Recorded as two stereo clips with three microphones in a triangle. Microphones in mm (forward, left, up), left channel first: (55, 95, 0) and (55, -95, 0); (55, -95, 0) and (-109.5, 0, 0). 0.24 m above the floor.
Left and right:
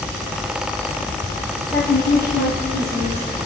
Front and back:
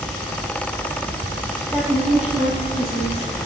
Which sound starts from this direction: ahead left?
A woman speaking, at 1.7 s.